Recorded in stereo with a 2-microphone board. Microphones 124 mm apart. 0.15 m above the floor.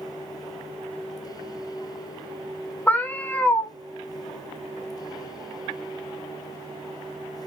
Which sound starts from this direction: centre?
A cat meowing, at 2.9 s.